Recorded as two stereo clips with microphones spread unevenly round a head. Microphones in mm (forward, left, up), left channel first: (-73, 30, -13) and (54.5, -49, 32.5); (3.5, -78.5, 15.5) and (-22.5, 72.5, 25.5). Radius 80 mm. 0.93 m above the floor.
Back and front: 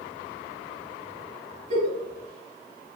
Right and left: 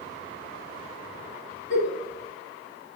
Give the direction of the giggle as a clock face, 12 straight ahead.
12 o'clock.